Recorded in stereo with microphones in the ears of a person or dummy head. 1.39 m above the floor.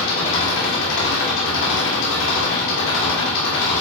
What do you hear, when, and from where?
0.0 s an engine running: 75° left (ahead or behind), 2 m